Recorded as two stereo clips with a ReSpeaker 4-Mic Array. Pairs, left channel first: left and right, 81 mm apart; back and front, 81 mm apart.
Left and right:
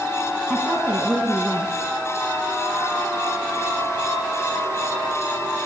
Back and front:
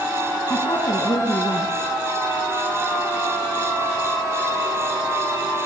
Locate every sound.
0.5 s a woman speaking: 165° right, 6.5 m